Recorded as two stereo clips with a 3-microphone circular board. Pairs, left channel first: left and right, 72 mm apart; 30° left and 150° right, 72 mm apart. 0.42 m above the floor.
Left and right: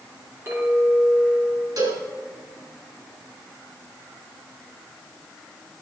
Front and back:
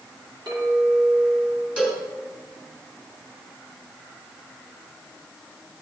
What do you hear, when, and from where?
0.5 s a clink: 150° right, 3.5 m
1.8 s a cowbell: 80° right, 3 m